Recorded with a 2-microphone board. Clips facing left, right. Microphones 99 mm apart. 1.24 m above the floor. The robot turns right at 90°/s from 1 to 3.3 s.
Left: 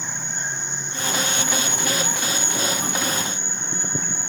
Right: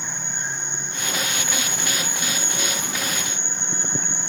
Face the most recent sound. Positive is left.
turn(degrees=-60)